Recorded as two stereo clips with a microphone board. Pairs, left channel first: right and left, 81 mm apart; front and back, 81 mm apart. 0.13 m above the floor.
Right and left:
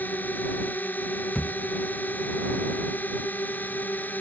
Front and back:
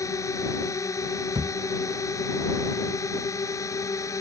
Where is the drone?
30° right.